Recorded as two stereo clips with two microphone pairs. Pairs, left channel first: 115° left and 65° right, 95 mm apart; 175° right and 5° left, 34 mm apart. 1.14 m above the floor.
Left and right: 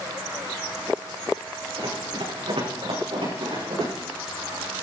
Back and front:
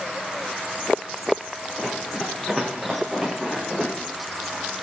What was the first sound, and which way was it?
Running footsteps, 90° right.